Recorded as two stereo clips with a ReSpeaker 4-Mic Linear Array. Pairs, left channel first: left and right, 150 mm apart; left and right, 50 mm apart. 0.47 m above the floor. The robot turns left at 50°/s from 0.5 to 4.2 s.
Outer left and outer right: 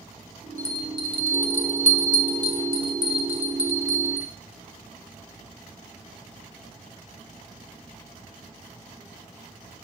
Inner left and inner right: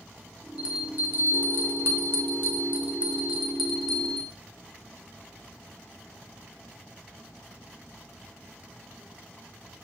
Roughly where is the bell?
Ahead.